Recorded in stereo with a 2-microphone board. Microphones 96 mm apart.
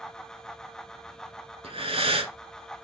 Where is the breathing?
85° right, 0.8 m.